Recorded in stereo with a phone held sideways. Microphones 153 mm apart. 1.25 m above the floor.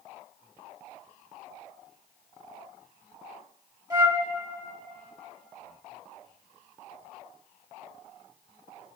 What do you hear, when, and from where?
3.9 s a flute: 25° right (ahead or behind), 1.9 m